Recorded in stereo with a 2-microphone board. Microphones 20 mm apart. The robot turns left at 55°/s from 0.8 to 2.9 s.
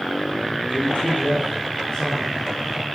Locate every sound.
0.7 s a man speaking: 110° left, 9.5 m; by 2.5 s 20° left, 9.5 m